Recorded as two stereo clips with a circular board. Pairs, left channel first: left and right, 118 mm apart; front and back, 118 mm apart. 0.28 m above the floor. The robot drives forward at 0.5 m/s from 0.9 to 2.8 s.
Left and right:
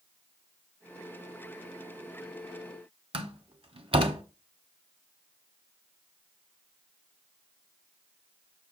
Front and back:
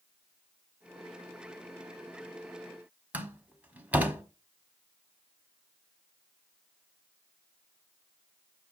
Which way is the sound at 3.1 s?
110° right.